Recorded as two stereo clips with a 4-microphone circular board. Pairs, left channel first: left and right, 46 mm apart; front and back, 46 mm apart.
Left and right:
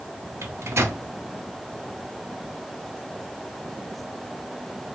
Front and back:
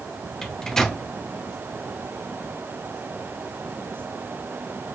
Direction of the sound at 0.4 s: 80° right.